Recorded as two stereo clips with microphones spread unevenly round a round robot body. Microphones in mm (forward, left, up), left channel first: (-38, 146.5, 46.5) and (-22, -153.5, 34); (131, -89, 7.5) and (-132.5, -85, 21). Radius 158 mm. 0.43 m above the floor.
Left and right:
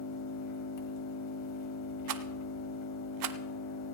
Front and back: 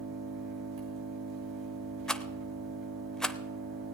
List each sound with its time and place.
0.0 s an engine running: 125° left, 2.5 m
2.1 s a rattle: 90° right, 0.7 m